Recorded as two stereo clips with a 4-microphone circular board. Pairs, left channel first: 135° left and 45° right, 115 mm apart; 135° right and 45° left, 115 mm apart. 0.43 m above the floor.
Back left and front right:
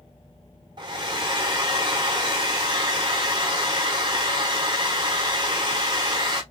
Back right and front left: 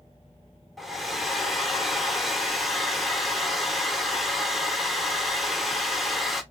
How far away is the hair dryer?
About 0.7 m.